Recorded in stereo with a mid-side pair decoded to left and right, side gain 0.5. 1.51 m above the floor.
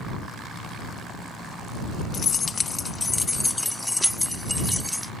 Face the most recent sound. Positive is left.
turn(degrees=0)